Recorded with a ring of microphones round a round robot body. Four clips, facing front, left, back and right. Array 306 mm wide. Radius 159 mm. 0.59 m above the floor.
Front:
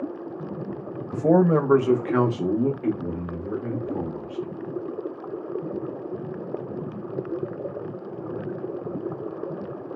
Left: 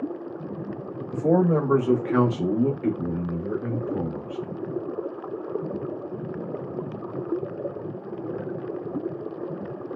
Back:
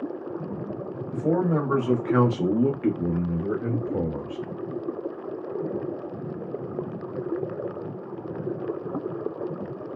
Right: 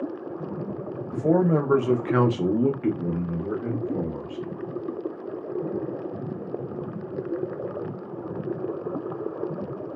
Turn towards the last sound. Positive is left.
turn(degrees=-160)